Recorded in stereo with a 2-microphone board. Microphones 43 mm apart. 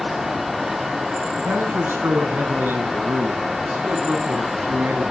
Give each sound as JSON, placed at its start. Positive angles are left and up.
{"t": 1.4, "sound": "a man speaking", "side_deg": -60, "distance_m": 6.5}